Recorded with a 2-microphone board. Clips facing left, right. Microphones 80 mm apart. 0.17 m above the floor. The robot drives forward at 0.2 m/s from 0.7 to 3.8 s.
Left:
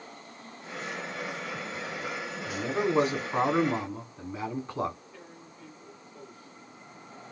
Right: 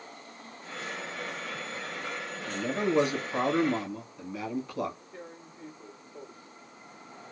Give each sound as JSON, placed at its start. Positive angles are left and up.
{"t": 2.5, "sound": "a man speaking", "side_deg": 30, "distance_m": 1.7}
{"t": 5.1, "sound": "tearing paper", "side_deg": -30, "distance_m": 1.2}